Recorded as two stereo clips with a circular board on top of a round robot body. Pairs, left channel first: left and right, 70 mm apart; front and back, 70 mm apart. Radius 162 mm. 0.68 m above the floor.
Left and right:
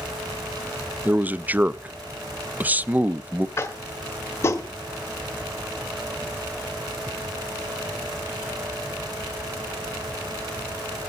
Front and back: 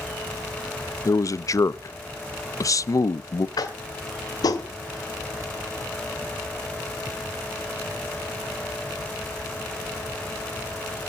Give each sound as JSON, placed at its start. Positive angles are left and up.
{"t": 1.1, "sound": "a man speaking", "azimuth_deg": -25, "distance_m": 0.6}
{"t": 3.6, "sound": "tapping", "azimuth_deg": 35, "distance_m": 0.8}